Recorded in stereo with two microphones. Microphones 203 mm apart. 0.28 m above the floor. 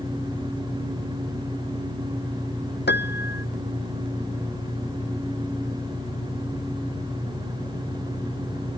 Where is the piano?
55° left (ahead or behind).